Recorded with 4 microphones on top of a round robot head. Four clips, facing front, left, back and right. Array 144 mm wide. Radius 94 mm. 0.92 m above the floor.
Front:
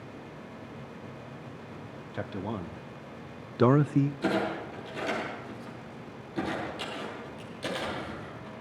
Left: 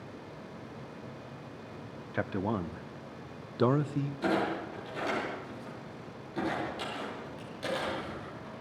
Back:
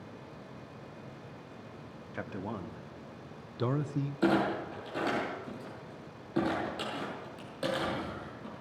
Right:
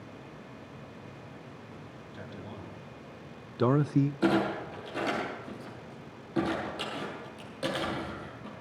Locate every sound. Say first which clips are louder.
2.1 s a man speaking: left 13 dB, front 4 dB; 75° left, 1.3 m; by 4.1 s 50° right, 0.6 m
4.2 s a clunk: right 3 dB, back 1 dB; 140° right, 8 m